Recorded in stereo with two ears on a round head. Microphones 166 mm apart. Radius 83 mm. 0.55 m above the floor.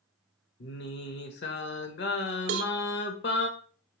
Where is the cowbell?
85° right, 0.6 m.